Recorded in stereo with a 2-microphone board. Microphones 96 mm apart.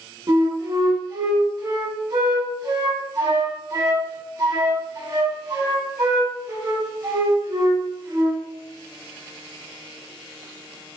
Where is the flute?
40° right (ahead or behind), 0.7 m.